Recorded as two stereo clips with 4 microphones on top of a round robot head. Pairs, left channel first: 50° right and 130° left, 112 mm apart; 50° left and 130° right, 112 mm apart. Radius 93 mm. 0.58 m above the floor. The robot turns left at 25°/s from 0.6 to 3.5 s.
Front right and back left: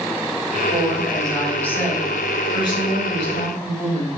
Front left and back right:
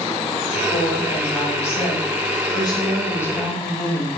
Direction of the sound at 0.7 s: 45° left.